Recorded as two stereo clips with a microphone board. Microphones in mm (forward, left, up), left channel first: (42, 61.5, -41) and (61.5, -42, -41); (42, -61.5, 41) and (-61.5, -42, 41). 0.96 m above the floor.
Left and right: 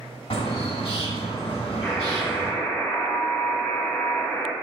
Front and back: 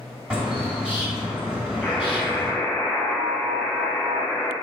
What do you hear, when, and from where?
0.3 s a bird: 85° left, 1.3 m
1.8 s a buzzer: 50° left, 0.6 m